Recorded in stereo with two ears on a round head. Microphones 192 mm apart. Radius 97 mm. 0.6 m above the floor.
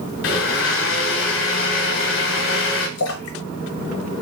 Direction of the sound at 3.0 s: 75° left (ahead or behind).